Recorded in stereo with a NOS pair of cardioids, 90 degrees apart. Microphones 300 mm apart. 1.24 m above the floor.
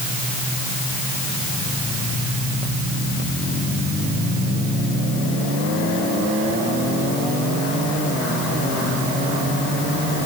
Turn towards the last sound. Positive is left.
No sound to turn to.